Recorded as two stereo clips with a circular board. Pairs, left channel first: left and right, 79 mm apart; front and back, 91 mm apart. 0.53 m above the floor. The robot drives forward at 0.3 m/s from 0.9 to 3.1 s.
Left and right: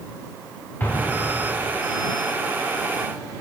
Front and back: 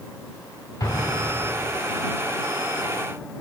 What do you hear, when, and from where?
0.8 s an explosion: 35° left, 1.4 m; by 1.7 s 45° left, 1.3 m